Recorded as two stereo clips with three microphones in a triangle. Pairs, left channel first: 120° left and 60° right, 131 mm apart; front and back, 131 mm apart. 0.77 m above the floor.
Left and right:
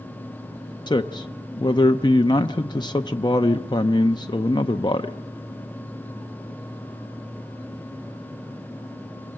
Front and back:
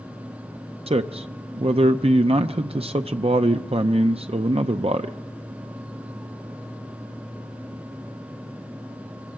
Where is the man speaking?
165° left, 0.5 m.